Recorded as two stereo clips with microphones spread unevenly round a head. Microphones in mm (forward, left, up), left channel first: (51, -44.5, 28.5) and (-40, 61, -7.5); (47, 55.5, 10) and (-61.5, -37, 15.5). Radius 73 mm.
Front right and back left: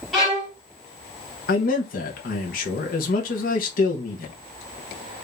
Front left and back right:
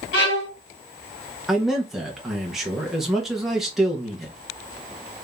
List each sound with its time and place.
0.1 s a violin: 40° left, 2 m
1.5 s a man speaking: 50° right, 0.9 m